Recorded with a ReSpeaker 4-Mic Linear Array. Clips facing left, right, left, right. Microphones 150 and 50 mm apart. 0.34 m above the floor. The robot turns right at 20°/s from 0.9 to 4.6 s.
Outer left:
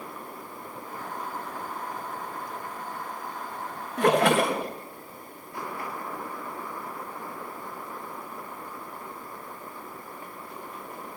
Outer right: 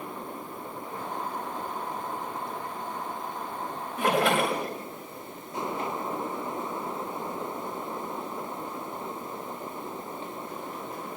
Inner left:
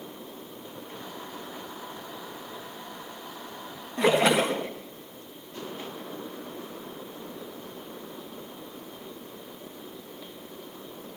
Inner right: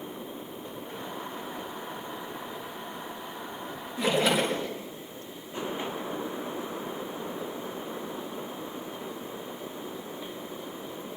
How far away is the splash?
About 4 m.